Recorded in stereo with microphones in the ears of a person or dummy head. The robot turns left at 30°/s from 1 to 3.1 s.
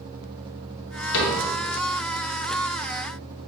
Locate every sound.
1.1 s a cupboard door: 55° left (ahead or behind), 0.9 m; by 1.4 s 50° left (ahead or behind), 0.9 m